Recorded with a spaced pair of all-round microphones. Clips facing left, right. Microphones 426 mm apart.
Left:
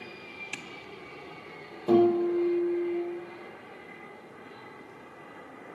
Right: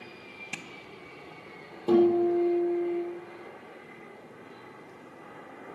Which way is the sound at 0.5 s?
60° right (ahead or behind).